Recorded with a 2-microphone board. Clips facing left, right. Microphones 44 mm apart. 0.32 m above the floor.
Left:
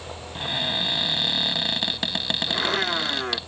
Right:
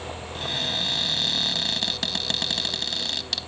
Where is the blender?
70° left (ahead or behind).